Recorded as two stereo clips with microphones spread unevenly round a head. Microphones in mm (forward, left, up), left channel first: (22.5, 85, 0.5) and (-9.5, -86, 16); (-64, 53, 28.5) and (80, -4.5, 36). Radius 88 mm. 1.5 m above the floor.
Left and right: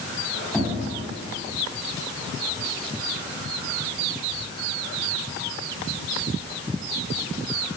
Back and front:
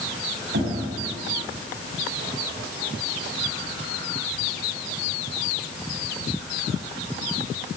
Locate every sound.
0.5 s knocking: 5° right, 8.5 m